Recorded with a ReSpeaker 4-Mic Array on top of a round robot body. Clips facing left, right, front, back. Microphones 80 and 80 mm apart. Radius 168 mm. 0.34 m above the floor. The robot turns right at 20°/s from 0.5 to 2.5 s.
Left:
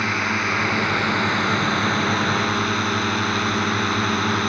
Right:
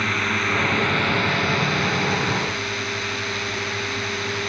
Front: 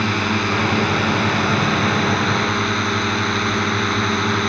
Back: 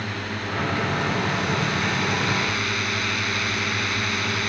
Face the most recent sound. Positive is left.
turn(degrees=50)